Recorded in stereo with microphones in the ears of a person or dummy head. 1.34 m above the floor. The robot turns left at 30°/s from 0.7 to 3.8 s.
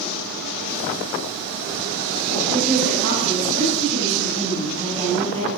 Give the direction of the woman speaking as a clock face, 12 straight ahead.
4 o'clock.